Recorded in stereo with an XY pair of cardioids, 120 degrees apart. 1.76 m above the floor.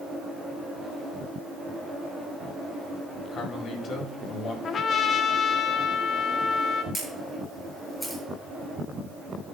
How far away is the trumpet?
About 0.7 m.